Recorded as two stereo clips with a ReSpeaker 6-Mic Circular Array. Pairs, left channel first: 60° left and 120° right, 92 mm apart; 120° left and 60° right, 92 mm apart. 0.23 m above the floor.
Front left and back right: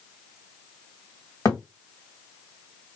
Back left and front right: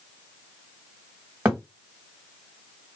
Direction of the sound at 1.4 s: 5° left.